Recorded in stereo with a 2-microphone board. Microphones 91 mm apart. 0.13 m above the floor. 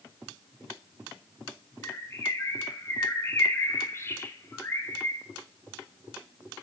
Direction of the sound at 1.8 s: 30° left (ahead or behind).